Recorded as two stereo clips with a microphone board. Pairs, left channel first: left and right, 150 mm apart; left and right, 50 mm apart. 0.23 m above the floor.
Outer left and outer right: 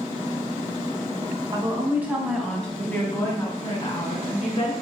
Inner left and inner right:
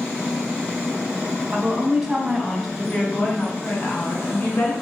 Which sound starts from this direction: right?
A woman speaking, at 1.5 s.